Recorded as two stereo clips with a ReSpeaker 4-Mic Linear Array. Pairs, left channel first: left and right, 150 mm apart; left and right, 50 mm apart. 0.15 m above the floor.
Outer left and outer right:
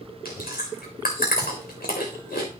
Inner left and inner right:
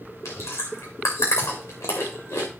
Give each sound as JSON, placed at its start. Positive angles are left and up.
{"t": 0.2, "sound": "chewing", "side_deg": 85, "distance_m": 3.5}